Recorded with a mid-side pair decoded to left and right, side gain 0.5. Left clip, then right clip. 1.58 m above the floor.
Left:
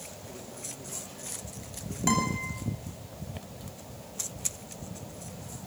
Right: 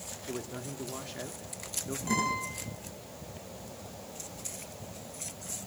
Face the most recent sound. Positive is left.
turn(degrees=70)